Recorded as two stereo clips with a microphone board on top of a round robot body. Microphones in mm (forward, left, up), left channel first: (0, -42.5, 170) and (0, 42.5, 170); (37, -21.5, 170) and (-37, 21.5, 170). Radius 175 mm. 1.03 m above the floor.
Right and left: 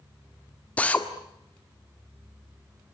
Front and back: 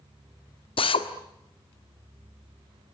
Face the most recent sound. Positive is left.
turn(degrees=-15)